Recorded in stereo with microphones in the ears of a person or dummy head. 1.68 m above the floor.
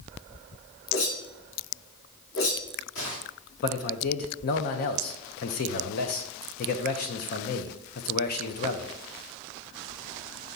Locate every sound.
0.9 s a whoosh: 70° left (ahead or behind), 3 m
3.6 s a man speaking: 50° left (ahead or behind), 0.8 m